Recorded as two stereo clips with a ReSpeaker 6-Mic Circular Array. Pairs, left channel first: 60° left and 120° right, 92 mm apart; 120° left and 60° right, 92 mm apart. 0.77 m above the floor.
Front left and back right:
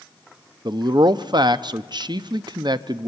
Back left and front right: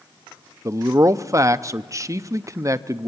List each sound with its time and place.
0.7 s a man speaking: 105° right, 0.6 m